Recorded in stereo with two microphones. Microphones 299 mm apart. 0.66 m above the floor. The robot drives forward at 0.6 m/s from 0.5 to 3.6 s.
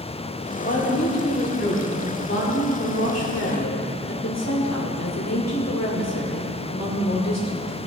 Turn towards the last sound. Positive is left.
turn(degrees=60)  # may be behind; listen again after turning